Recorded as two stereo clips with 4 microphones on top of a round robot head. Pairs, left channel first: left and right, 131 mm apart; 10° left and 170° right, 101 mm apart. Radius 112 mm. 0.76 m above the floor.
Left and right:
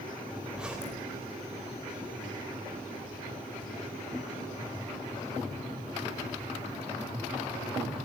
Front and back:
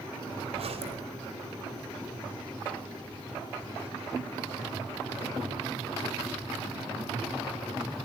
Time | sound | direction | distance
0.5 | a zipper | 175° right | 4 m